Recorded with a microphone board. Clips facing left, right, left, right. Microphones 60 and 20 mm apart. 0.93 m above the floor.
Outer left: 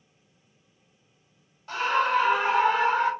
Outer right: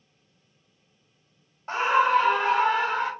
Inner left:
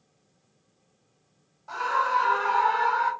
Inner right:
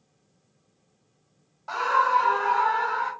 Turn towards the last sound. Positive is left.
turn(degrees=30)  # may be behind; listen again after turning